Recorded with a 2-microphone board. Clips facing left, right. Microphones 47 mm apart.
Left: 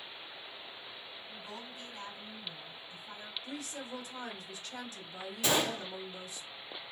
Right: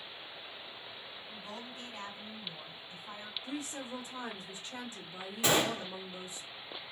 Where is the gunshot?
30° right (ahead or behind), 1.4 m.